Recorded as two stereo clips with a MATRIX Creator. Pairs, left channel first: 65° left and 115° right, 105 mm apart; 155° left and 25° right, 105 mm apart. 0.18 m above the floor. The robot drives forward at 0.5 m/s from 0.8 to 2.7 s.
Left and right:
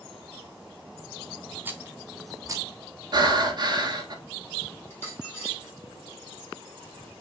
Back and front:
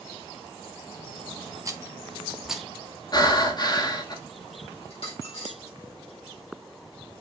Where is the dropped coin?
130° left, 3.5 m.